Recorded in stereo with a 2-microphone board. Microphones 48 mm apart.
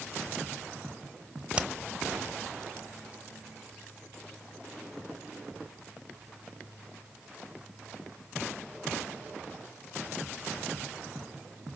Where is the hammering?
25° right (ahead or behind), 1.0 m.